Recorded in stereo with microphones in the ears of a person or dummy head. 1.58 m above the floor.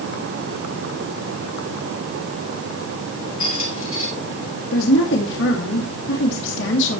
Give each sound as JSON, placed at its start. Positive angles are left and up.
{"t": 3.4, "sound": "a squeak", "side_deg": 45, "distance_m": 3.0}
{"t": 4.7, "sound": "a woman speaking", "side_deg": 75, "distance_m": 2.5}